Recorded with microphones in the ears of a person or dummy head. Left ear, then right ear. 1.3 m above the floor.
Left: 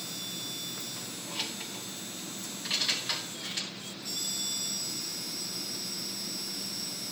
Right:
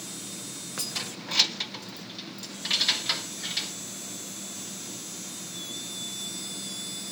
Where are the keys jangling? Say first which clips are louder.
Right 5 dB; 75° right (ahead or behind), 0.6 m; by 3.7 s 20° right (ahead or behind), 3 m.